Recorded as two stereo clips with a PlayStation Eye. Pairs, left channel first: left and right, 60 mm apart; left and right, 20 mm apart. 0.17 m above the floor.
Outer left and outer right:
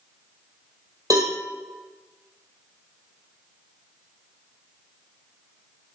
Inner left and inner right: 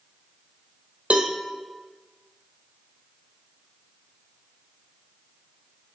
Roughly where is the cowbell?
Right.